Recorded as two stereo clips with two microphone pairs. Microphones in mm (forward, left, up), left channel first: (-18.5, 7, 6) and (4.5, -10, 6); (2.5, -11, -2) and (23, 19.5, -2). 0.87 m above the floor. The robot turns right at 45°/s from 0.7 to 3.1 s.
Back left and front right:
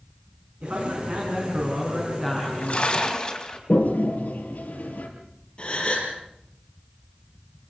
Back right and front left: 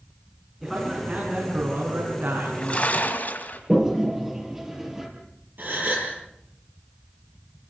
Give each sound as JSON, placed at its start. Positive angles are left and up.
{"t": 0.6, "sound": "a man speaking", "azimuth_deg": -30, "distance_m": 8.0}
{"t": 2.4, "sound": "a splash", "azimuth_deg": 170, "distance_m": 3.5}
{"t": 3.7, "sound": "a toilet flushing", "azimuth_deg": 130, "distance_m": 4.5}
{"t": 5.6, "sound": "a gasp", "azimuth_deg": 85, "distance_m": 6.0}